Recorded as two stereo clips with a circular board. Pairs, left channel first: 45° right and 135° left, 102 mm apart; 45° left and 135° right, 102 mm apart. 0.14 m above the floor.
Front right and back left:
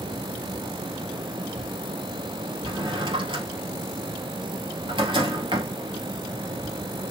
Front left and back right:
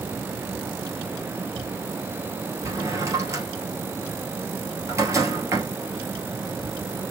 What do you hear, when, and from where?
2.6 s a drawer: 165° left, 2.0 m